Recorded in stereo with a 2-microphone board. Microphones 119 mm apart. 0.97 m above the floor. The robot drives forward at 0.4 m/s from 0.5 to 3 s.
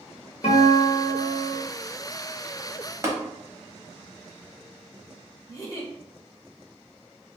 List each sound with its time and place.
0.4 s a guitar: 85° left, 1.1 m; by 1.6 s 70° left (ahead or behind), 1.2 m
3.0 s tapping: 25° right (ahead or behind), 0.7 m
5.5 s a giggle: 30° left (ahead or behind), 0.8 m